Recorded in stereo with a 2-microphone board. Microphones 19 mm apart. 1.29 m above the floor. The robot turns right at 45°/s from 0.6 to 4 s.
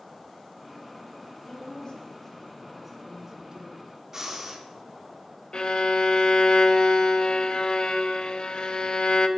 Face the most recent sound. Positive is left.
turn(degrees=50)  # may be behind; listen again after turning